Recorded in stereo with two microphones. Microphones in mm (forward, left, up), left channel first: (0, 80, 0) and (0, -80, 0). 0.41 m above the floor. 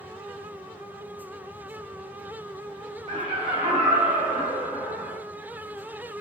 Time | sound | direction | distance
3.1 | laughter | 35° right (ahead or behind) | 1.1 m